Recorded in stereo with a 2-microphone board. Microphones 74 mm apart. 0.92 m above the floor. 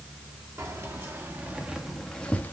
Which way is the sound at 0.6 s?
45° right (ahead or behind).